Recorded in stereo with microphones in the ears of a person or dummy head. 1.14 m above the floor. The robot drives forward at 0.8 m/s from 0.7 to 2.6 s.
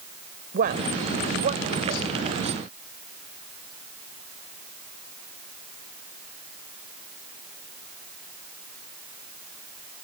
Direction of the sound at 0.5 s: 50° right (ahead or behind).